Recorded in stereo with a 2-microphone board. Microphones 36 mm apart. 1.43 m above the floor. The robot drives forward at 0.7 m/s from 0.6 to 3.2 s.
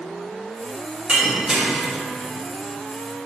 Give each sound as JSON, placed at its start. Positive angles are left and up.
{"t": 1.1, "sound": "breaking glass", "side_deg": -30, "distance_m": 1.7}